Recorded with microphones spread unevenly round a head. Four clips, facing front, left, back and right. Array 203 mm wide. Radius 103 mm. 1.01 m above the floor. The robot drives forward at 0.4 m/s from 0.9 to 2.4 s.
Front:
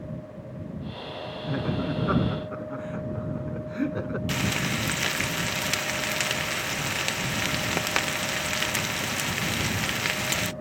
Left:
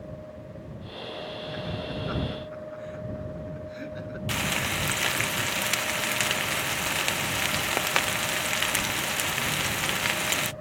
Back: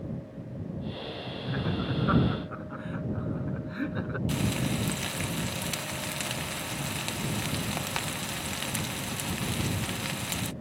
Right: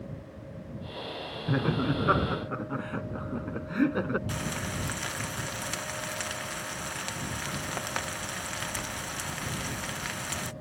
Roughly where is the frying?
Ahead left.